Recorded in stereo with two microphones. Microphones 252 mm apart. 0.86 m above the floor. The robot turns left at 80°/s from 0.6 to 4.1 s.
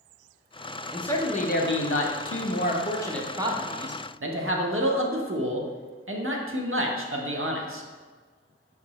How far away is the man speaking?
About 0.6 m.